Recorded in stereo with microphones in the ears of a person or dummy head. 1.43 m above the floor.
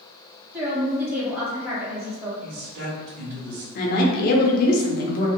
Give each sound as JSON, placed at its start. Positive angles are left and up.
{"t": 0.5, "sound": "a woman speaking", "side_deg": -5, "distance_m": 1.6}
{"t": 2.4, "sound": "a man speaking", "side_deg": -50, "distance_m": 1.5}
{"t": 3.8, "sound": "a woman speaking", "side_deg": 55, "distance_m": 0.7}